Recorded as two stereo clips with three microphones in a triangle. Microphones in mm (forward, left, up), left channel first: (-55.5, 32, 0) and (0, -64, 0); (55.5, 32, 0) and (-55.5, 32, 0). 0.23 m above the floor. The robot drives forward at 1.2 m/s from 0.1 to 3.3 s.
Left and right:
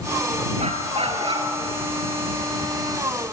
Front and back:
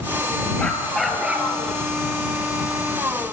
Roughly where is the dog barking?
Right.